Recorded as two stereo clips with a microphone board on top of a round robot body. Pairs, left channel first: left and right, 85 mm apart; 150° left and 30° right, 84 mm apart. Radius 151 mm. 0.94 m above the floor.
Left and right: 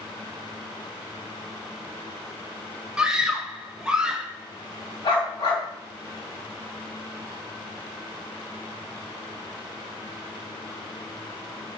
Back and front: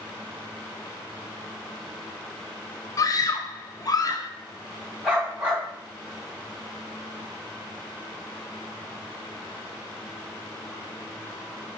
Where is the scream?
170° right, 0.7 m.